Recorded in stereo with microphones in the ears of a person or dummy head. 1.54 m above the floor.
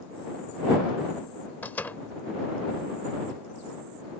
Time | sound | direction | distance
1.6 | a door slam | 10° left (ahead or behind) | ?